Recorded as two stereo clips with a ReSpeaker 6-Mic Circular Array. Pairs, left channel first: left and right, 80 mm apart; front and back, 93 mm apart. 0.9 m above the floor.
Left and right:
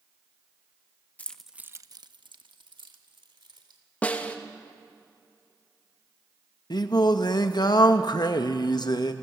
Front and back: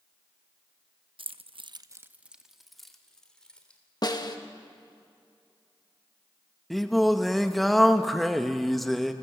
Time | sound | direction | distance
1.2 | keys jangling | 160° left | 0.7 m
4.0 | a snare drum | 20° left | 1.1 m
6.7 | singing | 90° left | 0.8 m